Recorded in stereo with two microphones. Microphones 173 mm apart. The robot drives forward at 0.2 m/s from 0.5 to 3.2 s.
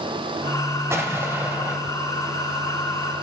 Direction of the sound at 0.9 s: 15° right (ahead or behind).